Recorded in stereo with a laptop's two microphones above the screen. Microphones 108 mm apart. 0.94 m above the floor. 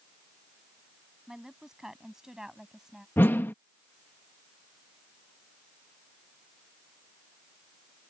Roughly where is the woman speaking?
Centre.